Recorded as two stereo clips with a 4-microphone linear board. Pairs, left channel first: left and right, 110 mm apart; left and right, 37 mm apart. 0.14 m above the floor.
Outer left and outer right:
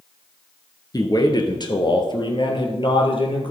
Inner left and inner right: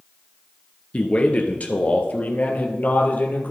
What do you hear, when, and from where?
0.9 s a man speaking: 35° left (ahead or behind), 2 m; by 3.5 s 50° left (ahead or behind), 3.5 m